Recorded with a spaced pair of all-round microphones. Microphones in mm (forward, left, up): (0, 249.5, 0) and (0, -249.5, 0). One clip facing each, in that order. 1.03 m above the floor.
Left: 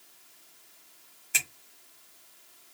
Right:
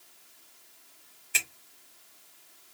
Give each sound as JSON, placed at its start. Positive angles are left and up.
{"t": 1.3, "sound": "a finger snap", "side_deg": 65, "distance_m": 1.3}